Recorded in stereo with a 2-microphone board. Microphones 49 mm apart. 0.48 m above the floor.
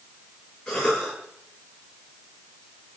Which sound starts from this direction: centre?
A cough, at 0.7 s.